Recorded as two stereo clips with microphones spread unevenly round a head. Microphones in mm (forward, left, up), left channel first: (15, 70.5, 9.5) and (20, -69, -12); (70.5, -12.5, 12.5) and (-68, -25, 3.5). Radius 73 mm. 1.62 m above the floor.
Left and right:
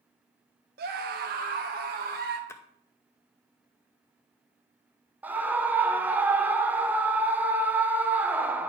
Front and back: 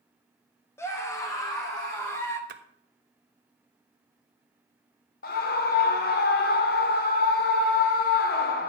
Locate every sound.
0.8 s a scream: 70° right, 0.8 m; by 2.4 s 65° right, 1.8 m
2.5 s a splash: 160° left, 0.7 m
5.2 s a scream: 5° right, 1.0 m